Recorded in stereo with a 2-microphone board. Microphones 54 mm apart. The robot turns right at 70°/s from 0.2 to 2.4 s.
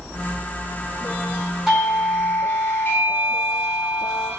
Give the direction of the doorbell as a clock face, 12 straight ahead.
12 o'clock.